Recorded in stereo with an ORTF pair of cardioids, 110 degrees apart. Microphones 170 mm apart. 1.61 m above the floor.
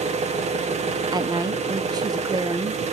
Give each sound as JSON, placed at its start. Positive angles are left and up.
{"t": 0.0, "sound": "an engine running", "azimuth_deg": -40, "distance_m": 1.6}
{"t": 1.1, "sound": "a woman speaking", "azimuth_deg": -25, "distance_m": 1.1}